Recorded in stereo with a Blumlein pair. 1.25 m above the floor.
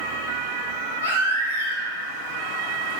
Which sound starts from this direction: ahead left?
A baby crying, at 1.0 s.